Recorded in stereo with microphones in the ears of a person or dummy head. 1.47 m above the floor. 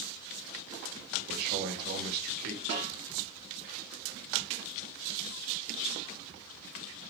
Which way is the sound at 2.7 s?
65° right (ahead or behind).